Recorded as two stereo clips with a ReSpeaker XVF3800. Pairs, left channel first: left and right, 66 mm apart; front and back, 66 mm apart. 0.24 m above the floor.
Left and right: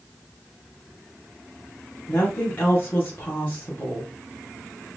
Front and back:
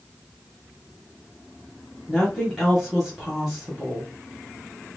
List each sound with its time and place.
2.1 s a woman speaking: 105° left, 1.4 m